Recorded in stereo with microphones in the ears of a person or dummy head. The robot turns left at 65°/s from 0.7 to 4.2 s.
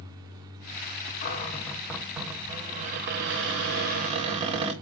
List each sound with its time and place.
1.2 s a cupboard door: 55° left, 0.9 m; by 4.7 s 140° right, 0.9 m